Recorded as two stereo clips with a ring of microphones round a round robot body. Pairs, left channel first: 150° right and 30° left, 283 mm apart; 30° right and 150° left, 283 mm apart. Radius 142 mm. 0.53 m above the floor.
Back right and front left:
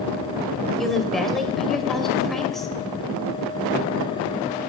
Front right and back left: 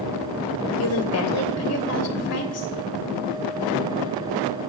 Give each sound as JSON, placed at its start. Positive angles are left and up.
{"t": 0.8, "sound": "a woman speaking", "azimuth_deg": -60, "distance_m": 2.5}